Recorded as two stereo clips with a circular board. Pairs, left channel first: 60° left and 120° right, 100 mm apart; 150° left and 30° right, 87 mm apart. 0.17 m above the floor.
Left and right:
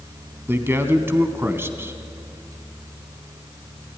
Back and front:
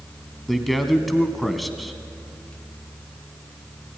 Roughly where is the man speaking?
Behind right.